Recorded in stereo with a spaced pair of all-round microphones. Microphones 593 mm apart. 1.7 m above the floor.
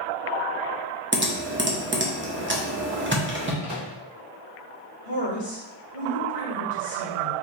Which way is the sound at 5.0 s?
65° left (ahead or behind).